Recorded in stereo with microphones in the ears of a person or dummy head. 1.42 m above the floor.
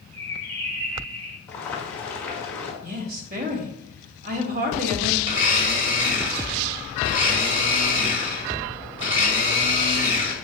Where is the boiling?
10° left (ahead or behind), 1.7 m.